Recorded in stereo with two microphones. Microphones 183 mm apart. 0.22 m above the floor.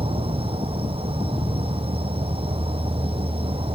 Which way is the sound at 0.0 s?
30° right (ahead or behind).